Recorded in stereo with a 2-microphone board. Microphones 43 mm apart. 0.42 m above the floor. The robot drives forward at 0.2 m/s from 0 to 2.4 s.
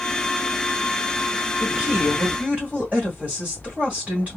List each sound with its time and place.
1.6 s a woman speaking: 35° right (ahead or behind), 2 m; by 4.4 s 30° right (ahead or behind), 2 m